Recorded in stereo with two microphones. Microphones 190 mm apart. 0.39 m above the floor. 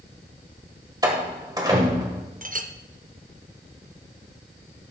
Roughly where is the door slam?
Centre.